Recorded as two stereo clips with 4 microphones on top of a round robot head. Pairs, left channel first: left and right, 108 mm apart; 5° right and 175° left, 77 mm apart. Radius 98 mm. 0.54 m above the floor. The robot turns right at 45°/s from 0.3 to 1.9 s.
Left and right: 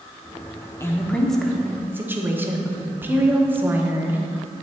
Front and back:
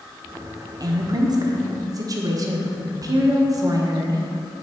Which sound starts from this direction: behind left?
A woman speaking, at 0.8 s.